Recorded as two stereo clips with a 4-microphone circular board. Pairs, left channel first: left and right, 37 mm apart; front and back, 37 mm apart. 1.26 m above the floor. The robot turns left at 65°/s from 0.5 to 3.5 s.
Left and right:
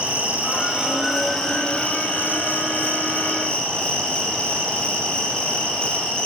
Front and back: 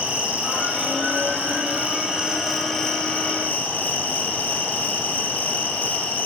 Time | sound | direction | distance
0.0 | an insect | 135° right | 2.5 m